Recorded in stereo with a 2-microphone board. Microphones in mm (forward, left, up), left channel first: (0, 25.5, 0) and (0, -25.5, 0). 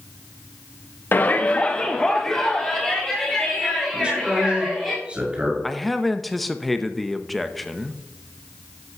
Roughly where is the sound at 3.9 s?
Right.